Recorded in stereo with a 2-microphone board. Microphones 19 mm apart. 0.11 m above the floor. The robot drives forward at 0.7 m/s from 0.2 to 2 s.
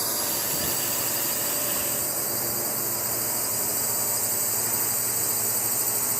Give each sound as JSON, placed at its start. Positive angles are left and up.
{"t": 0.0, "sound": "a drone", "side_deg": -10}